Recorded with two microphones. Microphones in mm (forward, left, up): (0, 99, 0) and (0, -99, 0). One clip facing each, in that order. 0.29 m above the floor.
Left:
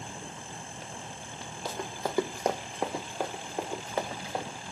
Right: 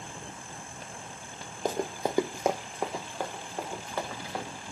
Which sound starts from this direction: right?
Running footsteps, at 1.6 s.